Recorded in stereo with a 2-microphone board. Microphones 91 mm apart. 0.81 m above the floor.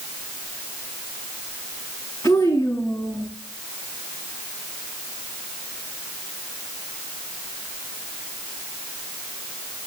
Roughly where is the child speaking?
Left.